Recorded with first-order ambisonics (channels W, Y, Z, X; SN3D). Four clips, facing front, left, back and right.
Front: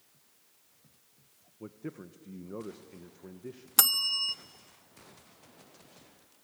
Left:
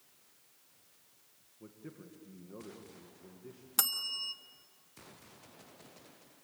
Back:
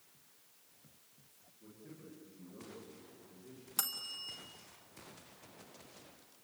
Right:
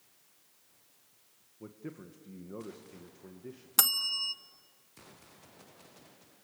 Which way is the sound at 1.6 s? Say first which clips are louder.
Right 5 dB, front 12 dB; 20° right.